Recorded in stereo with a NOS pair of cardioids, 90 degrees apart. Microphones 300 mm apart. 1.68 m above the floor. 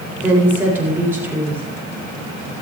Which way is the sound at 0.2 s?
5° right.